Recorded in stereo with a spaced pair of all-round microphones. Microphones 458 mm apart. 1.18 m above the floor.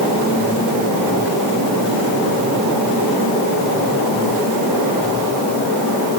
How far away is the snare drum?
I don't hear a snare drum.